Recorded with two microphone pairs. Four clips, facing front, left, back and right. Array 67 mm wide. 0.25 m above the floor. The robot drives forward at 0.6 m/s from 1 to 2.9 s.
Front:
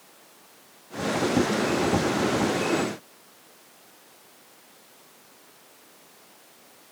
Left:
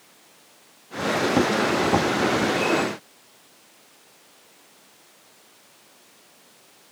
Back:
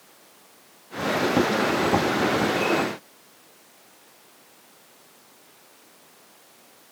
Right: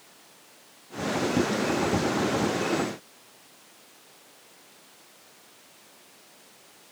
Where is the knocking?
No knocking in this recording.